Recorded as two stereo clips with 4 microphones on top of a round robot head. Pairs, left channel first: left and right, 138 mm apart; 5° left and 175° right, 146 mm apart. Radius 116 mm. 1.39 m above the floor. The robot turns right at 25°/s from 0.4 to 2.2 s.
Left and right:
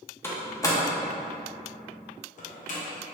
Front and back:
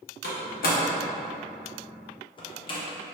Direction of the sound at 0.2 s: 15° left.